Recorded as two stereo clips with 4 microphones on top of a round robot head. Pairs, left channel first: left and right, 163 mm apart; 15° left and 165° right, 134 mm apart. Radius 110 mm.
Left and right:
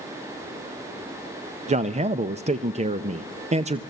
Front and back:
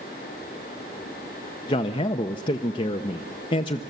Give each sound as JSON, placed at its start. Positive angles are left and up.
{"t": 1.7, "sound": "a man speaking", "azimuth_deg": -40, "distance_m": 0.6}